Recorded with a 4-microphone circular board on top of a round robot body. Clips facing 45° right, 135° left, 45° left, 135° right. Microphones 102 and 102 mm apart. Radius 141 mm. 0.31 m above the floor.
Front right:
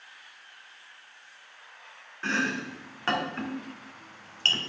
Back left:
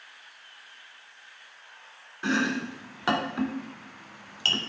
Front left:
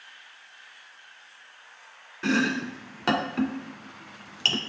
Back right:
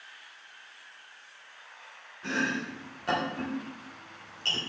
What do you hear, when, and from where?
2.2 s chopping: 60° left, 0.8 m